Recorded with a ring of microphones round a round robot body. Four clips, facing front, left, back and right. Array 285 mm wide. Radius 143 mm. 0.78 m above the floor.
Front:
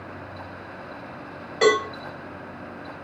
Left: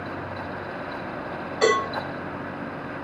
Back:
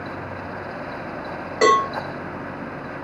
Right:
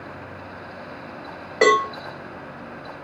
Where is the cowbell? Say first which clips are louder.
Right 4 dB, back 3 dB; 105° right, 2.5 m.